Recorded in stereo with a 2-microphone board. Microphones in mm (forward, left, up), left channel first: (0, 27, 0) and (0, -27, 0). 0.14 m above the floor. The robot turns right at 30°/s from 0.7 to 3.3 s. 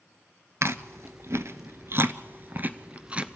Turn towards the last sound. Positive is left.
turn(degrees=-20)  # may be behind; listen again after turning